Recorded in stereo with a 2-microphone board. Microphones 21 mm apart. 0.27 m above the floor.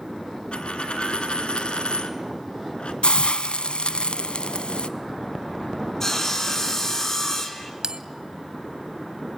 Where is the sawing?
25° left (ahead or behind), 2.5 m.